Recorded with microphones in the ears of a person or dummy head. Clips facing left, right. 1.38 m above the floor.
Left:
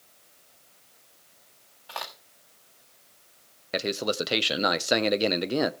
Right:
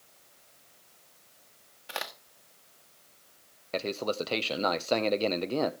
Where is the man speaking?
15° left (ahead or behind), 0.7 m.